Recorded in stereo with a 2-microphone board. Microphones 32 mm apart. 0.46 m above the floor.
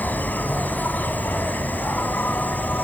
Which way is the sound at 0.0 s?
70° left (ahead or behind).